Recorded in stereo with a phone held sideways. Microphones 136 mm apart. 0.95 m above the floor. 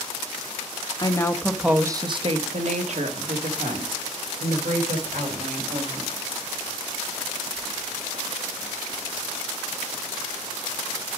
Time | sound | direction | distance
1.0 | a woman speaking | 35° left (ahead or behind) | 0.9 m